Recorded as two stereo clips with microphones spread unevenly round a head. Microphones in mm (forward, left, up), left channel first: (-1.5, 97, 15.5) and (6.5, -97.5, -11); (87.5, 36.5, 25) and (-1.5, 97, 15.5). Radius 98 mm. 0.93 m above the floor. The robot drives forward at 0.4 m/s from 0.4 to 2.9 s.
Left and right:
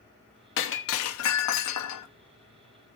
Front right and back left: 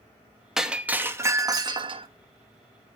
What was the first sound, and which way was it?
Breaking glass, 60° left.